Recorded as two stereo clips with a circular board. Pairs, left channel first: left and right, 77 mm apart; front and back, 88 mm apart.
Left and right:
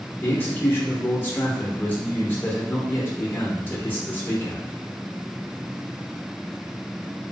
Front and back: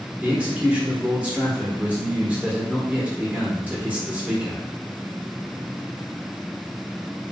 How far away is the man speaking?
About 0.8 m.